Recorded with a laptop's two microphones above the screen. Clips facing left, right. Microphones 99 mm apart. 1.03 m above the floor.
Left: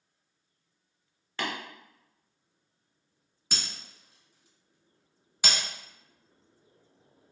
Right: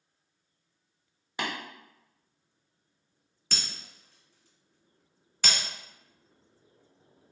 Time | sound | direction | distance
1.4 | tapping | 15° right (ahead or behind) | 0.7 m
3.5 | breaking glass | 10° left (ahead or behind) | 1.0 m